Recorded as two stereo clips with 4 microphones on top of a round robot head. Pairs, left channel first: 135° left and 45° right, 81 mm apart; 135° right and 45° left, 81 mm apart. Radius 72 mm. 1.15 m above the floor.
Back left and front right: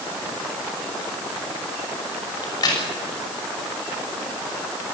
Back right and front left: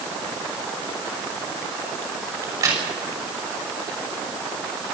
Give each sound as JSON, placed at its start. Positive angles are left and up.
{"t": 2.4, "sound": "a crack", "azimuth_deg": 95, "distance_m": 6.0}